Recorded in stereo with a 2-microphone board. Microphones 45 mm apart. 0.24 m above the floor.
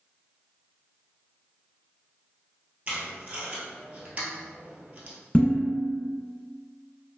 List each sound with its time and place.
2.9 s tape being pulled: 30° right (ahead or behind), 0.8 m
5.3 s dishes clattering: 30° left (ahead or behind), 1.6 m